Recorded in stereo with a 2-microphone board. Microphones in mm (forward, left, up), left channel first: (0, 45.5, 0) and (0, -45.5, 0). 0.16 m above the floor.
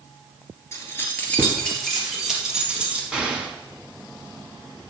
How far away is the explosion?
About 1.6 m.